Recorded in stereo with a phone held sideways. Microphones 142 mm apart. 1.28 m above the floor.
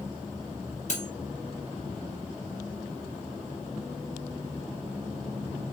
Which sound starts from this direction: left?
Cutlery clinking, at 0.9 s.